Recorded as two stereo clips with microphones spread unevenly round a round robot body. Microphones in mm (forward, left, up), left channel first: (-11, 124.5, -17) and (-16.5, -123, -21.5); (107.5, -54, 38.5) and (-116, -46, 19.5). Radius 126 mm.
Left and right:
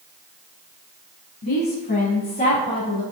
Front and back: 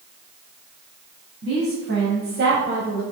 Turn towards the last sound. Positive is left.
turn(degrees=145)